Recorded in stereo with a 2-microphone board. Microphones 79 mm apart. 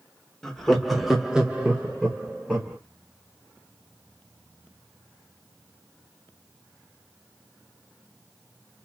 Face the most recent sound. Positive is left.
turn(degrees=-15)  # may be behind; listen again after turning